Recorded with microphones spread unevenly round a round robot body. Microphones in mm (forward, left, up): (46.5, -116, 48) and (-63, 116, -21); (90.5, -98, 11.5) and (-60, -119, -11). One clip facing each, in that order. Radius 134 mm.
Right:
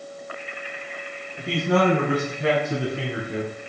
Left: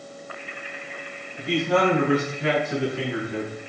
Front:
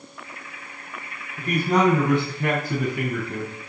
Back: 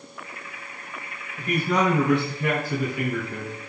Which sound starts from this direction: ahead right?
A man speaking, at 1.4 s.